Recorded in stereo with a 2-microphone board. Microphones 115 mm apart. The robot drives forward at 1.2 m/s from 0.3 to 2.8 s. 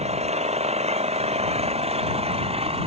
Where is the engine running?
80° right; by 2.9 s 65° right (ahead or behind).